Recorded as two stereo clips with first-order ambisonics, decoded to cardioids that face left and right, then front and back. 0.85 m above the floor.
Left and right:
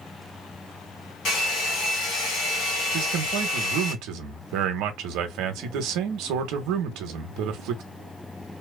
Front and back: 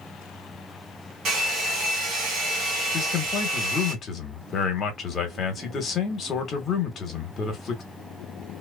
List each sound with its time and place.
1.2 s a hair dryer: 125° left, 1.4 m
2.9 s a man speaking: 60° right, 0.8 m